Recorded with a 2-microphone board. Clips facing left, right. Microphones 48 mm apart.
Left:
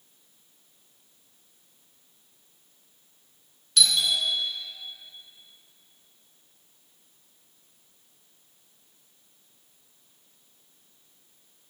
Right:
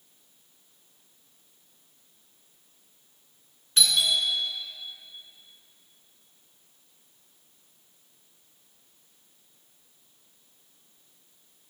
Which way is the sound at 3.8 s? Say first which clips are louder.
Even; 25° right (ahead or behind).